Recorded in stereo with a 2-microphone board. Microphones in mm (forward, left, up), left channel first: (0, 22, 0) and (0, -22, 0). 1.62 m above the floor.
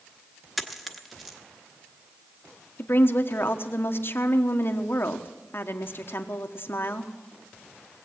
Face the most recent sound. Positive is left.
turn(degrees=55)  # may be behind; listen again after turning